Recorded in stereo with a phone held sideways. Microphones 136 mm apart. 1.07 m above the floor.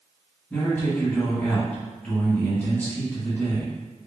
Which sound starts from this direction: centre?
A man speaking, at 0.5 s.